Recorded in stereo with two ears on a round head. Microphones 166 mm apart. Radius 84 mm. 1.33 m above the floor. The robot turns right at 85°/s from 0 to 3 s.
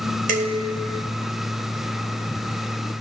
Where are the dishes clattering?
45° right, 3.5 m; by 1.1 s 20° left, 3.5 m.